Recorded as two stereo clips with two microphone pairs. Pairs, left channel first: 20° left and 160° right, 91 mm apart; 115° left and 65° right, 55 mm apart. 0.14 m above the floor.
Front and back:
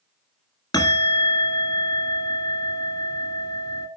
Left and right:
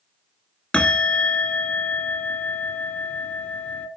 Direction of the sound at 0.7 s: 50° left.